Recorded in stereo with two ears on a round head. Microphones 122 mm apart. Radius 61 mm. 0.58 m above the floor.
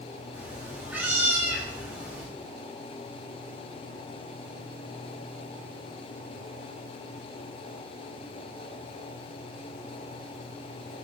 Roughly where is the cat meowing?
Centre.